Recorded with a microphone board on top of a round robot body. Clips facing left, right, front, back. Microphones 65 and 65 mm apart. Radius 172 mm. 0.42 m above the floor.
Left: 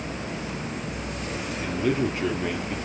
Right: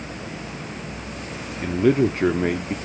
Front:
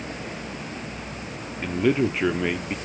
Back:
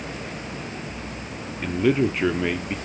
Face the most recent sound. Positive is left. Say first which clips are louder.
# right 7 dB, back 1 dB
turn(degrees=-90)